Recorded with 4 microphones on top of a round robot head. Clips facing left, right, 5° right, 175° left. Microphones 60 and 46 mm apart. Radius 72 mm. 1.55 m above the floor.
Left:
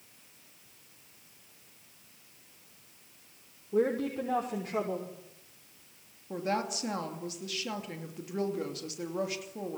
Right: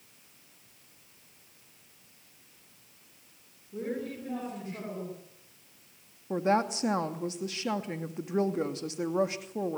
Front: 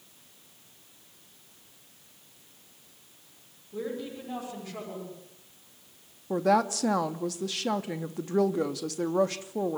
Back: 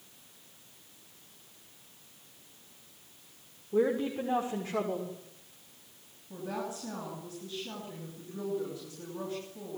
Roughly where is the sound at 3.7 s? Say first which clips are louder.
Left 7 dB, back 7 dB; behind left.